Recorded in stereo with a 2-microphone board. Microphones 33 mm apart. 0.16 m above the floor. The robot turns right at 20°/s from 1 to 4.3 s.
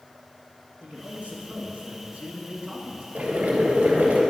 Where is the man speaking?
95° right, 2 m; by 3.0 s 55° right, 2 m.